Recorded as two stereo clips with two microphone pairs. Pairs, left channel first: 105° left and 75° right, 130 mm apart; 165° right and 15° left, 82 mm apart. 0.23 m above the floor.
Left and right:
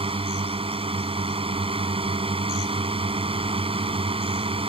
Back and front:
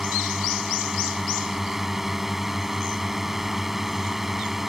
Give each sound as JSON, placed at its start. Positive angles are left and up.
{"t": 0.0, "sound": "a drone", "azimuth_deg": -65}